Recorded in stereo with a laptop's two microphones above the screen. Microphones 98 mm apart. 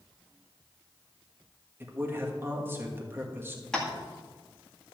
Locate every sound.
1.8 s a man speaking: 25° right (ahead or behind), 1.5 m
3.7 s tapping: 5° left (ahead or behind), 1.9 m